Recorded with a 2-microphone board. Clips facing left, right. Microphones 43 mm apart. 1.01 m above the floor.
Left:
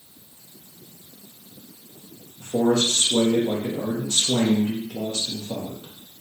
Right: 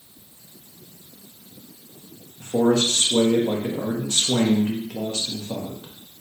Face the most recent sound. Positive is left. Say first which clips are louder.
# right 1 dB
turn(degrees=-40)  # may be behind; listen again after turning